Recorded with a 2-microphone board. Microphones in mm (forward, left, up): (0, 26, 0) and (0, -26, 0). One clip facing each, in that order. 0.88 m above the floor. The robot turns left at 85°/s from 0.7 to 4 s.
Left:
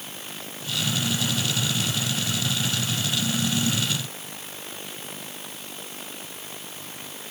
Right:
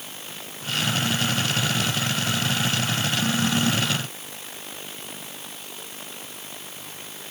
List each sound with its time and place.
Only background noise.